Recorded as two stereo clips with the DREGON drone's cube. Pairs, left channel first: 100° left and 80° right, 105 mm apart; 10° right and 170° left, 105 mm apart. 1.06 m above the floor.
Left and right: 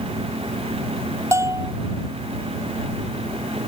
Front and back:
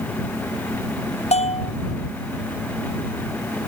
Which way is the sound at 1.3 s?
15° right.